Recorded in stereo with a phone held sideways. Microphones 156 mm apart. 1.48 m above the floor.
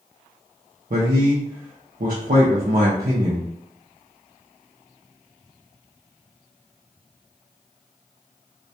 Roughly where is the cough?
No cough in this recording.